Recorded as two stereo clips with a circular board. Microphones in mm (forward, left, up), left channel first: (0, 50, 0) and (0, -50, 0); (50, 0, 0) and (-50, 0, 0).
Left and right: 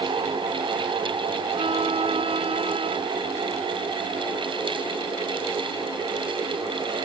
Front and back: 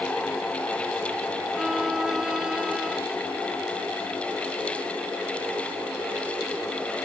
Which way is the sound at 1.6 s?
95° right.